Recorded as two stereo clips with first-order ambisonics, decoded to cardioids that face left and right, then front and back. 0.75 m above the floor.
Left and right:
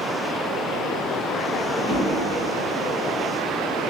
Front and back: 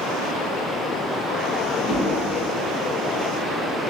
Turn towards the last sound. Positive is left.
turn(degrees=-55)